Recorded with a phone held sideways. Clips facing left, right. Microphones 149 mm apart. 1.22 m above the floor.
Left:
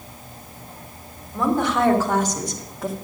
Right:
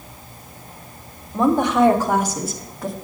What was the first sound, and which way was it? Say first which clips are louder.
A woman speaking: right 4 dB; 20° right (ahead or behind).